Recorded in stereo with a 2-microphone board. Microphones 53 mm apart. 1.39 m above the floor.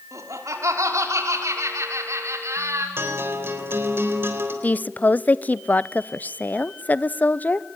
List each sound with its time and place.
0.1 s laughter: 80° right, 4.5 m; by 2.9 s 65° right (ahead or behind), 5.5 m
3.0 s a guitar: 50° right (ahead or behind), 3.5 m
4.6 s a woman speaking: 35° left (ahead or behind), 0.6 m